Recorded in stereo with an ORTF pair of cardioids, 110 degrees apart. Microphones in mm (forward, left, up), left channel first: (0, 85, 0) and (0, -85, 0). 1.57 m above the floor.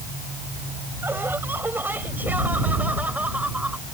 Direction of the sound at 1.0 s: 15° right.